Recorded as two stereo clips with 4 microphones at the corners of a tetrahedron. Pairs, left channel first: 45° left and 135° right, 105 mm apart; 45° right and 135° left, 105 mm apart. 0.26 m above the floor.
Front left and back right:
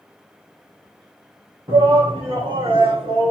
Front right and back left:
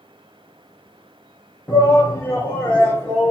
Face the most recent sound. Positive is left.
turn(degrees=-135)